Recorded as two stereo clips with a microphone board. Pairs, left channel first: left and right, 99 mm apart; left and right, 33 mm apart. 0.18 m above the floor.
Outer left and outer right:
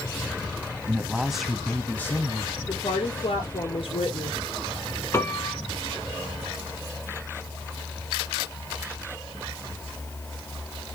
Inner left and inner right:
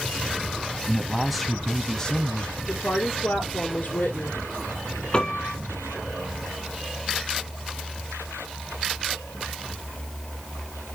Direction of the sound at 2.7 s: 65° left (ahead or behind).